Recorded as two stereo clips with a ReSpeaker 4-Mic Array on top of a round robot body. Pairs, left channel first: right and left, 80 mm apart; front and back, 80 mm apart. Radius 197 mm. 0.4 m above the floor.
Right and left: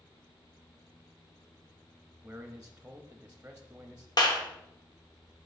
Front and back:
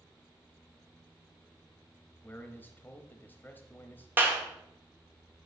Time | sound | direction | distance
2.2 | a man speaking | 35° left | 1.1 m
4.2 | a clap | 120° right | 1.7 m